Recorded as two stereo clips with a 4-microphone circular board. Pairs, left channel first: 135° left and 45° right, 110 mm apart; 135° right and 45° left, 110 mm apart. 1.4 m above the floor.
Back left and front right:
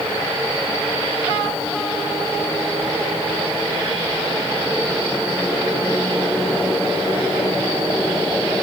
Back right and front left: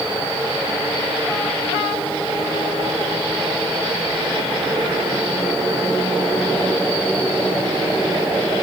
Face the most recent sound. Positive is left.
No sound to turn to.